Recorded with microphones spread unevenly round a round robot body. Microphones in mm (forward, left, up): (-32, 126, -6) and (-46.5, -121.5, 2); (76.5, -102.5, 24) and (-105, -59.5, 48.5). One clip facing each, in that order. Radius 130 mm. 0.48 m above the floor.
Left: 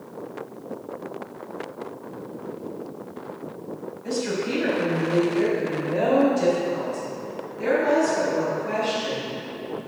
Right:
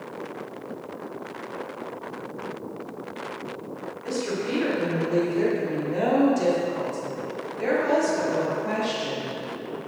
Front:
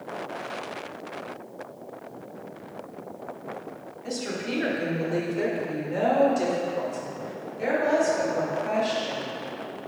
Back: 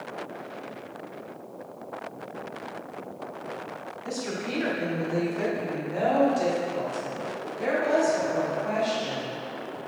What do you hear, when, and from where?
4.0 s a woman speaking: 25° right, 1.4 m; by 9.3 s 75° right, 3.5 m